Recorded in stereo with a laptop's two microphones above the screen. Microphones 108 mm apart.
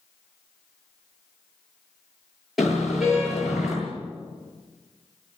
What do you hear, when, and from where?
2.6 s a car horn: centre (ahead or behind), 9.5 m